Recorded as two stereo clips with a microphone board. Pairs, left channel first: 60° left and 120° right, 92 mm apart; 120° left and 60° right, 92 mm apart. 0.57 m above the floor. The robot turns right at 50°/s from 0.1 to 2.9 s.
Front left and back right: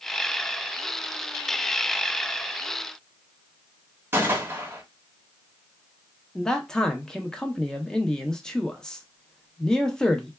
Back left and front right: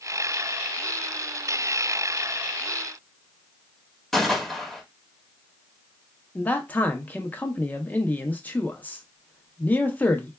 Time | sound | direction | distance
4.1 | a gunshot | 155° right | 0.9 m
6.3 | a man speaking | 130° left | 0.6 m